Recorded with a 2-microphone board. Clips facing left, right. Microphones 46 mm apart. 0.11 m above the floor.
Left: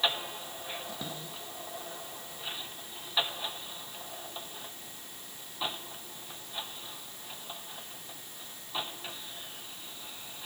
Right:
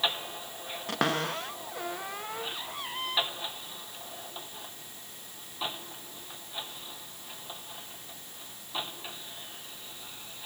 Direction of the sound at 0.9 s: 80° right.